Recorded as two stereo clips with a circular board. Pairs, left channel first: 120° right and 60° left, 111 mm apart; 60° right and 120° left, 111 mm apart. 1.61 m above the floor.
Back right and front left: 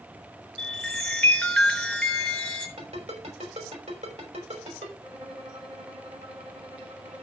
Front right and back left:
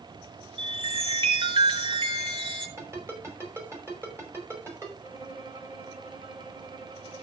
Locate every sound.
0.6 s a chime: 155° left, 2.5 m
2.8 s a ringtone: 55° left, 5.5 m
5.0 s a violin: 90° left, 4 m